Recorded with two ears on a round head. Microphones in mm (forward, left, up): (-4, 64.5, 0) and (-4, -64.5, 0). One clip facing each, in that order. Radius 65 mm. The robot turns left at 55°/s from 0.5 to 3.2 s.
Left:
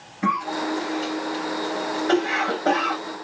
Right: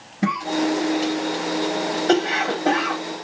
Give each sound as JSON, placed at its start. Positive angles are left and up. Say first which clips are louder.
{"t": 0.2, "sound": "a cough", "louder": "right 3 dB", "side_deg": -45, "distance_m": 1.8}